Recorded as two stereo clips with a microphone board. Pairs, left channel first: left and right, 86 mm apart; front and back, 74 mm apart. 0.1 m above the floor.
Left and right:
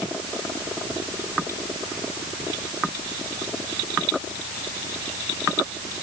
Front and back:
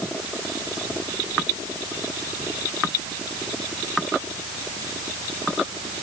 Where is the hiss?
I don't hear a hiss.